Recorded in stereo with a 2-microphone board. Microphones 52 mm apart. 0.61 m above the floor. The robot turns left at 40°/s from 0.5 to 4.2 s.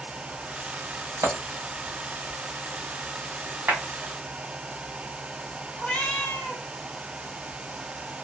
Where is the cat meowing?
20° left (ahead or behind), 1.4 m.